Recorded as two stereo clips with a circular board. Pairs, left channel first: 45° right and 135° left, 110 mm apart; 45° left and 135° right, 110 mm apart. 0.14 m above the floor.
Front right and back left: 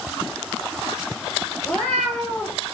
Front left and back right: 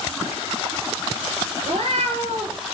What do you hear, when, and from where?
1.6 s a cat meowing: 130° right, 0.6 m